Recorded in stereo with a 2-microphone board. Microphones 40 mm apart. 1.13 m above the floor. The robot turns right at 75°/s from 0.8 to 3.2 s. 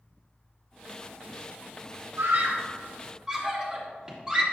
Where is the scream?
80° right, 2.5 m; by 4.4 s 20° right (ahead or behind), 2.5 m.